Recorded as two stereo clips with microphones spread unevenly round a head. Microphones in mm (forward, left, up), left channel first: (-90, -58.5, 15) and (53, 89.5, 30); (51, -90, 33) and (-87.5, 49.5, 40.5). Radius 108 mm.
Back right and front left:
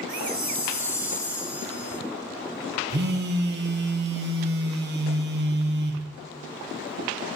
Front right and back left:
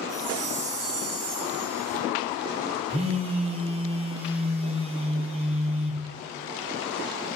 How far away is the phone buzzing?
About 1.0 m.